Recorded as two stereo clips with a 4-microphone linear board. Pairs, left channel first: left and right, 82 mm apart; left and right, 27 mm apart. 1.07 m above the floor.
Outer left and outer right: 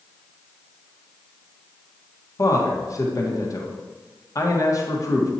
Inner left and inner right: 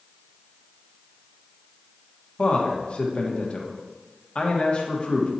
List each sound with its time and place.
2.4 s a man speaking: 40° left (ahead or behind), 1.3 m